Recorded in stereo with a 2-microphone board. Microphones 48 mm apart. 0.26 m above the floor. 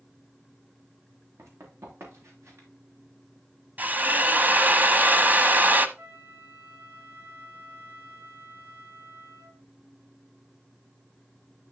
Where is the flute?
55° right (ahead or behind), 3.5 m.